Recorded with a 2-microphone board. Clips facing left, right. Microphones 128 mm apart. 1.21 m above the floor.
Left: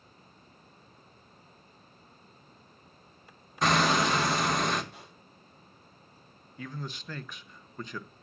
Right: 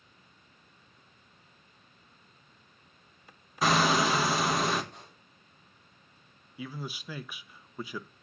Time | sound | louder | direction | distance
3.6 | hammering | even | 5° right (ahead or behind) | 1.2 m
4.9 | a pop | left 1 dB | 5° left (ahead or behind) | 5.5 m
6.6 | a man speaking | right 1 dB | 10° right (ahead or behind) | 0.6 m